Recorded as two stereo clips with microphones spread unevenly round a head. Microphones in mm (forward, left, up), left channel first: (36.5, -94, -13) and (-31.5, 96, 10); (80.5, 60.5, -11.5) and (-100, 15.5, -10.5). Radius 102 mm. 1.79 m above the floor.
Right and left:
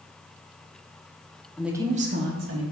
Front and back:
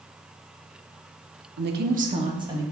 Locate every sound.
1.6 s a woman speaking: 160° right, 0.9 m; by 2.6 s 120° left, 1.6 m